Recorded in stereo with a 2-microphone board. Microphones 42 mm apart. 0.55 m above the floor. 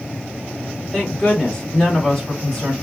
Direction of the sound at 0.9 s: 15° left (ahead or behind).